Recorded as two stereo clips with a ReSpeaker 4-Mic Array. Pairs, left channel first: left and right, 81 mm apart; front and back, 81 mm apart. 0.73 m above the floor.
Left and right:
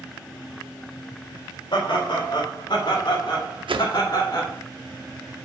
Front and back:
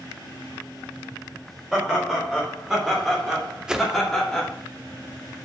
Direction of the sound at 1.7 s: 100° left.